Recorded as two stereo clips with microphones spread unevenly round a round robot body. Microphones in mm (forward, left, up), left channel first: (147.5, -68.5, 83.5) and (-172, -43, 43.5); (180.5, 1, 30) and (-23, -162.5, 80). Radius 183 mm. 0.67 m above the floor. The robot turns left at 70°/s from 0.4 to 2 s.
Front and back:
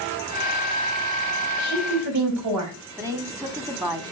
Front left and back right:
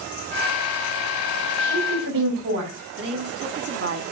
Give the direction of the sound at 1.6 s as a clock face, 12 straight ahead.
4 o'clock.